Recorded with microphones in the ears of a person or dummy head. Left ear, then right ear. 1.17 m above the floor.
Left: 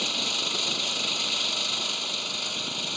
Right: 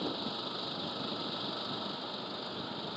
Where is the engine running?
75° left (ahead or behind).